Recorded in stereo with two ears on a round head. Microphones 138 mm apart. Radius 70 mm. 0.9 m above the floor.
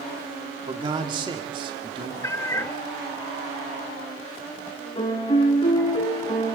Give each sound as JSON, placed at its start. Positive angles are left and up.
{"t": 0.7, "sound": "a man speaking", "side_deg": -30, "distance_m": 2.0}
{"t": 2.2, "sound": "a cat meowing", "side_deg": 20, "distance_m": 0.7}
{"t": 5.0, "sound": "a piano", "side_deg": 30, "distance_m": 4.5}